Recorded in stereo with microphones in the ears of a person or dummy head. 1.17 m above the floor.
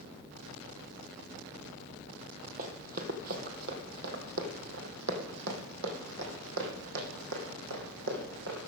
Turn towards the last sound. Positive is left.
turn(degrees=-75)  # may be behind; listen again after turning